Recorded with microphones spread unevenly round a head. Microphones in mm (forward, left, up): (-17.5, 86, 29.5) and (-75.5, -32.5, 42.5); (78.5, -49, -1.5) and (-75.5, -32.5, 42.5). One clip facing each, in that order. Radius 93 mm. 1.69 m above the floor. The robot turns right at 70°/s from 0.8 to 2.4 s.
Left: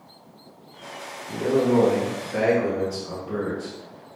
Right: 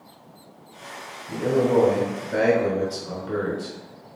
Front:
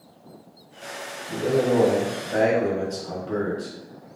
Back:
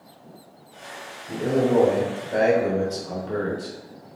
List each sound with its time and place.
1.3 s a man speaking: straight behind, 2.5 m; by 4.1 s 100° right, 2.5 m